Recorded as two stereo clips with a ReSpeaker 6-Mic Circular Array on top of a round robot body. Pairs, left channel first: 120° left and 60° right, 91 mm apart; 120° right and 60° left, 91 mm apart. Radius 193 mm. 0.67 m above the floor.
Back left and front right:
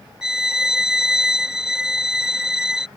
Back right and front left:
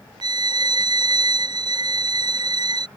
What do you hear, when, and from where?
0.2 s a violin: 25° left